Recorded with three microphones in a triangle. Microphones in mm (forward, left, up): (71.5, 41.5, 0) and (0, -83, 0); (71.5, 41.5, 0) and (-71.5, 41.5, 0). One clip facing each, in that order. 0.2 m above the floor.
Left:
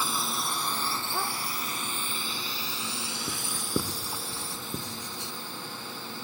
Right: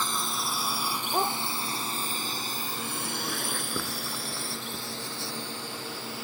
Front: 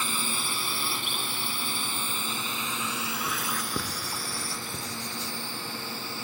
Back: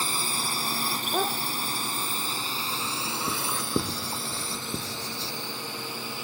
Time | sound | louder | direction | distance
0.0 | a drone | even, back 1 dB | 145° left | ?
1.1 | a dog barking | right 9 dB, back 10 dB | 175° right | ?
3.3 | writing | left 1 dB, back 3 dB | 130° left | ?